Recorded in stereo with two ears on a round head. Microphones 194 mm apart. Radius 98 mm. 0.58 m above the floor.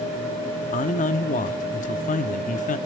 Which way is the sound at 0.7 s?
35° left (ahead or behind).